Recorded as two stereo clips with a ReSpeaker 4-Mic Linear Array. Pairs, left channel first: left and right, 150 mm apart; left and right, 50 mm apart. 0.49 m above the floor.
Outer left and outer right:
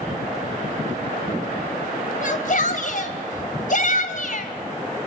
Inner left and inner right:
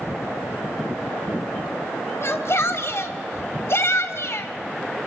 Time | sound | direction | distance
2.2 | a shout | 60° left (ahead or behind) | 2.5 m